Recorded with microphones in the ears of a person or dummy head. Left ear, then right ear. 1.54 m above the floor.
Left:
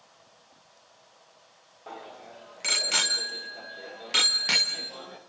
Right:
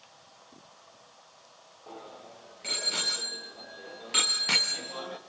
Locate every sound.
1.9 s a bicycle bell: 55° left (ahead or behind), 2.5 m; by 5.2 s 5° right (ahead or behind), 1.2 m